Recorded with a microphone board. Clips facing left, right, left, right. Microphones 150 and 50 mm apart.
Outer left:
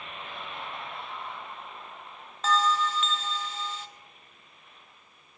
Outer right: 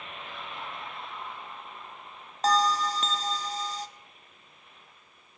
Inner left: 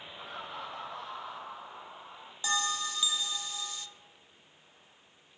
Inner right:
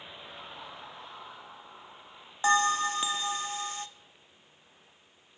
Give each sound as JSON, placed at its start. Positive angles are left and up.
{"t": 0.2, "sound": "laughter", "side_deg": 55, "distance_m": 4.5}
{"t": 2.4, "sound": "a bell", "side_deg": -40, "distance_m": 0.9}